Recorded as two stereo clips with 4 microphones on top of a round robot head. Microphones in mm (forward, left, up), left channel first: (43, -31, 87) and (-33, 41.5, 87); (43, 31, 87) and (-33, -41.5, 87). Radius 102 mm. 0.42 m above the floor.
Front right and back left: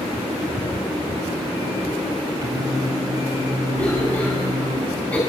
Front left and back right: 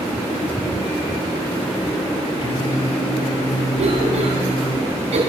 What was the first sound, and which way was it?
Singing, 85° left.